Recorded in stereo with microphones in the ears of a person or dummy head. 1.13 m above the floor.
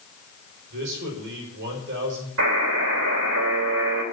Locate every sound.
0.7 s a man speaking: 65° right (ahead or behind), 5 m
2.4 s a buzzer: 80° right, 4.5 m